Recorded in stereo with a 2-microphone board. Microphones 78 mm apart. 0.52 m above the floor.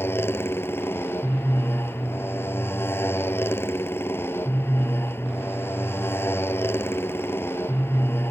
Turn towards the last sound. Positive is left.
turn(degrees=30)  # may be behind; listen again after turning